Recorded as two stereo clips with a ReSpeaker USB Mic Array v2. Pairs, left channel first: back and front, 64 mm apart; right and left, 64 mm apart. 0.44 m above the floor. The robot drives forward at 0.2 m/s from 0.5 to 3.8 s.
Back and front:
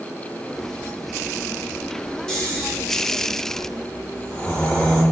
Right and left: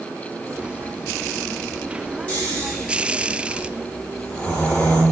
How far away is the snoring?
About 1.1 m.